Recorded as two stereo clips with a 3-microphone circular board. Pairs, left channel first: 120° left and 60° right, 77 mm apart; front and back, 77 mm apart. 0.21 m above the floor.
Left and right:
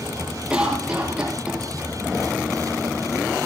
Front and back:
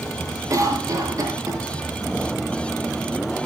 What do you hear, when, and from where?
0.5 s a cough: 140° right, 5.5 m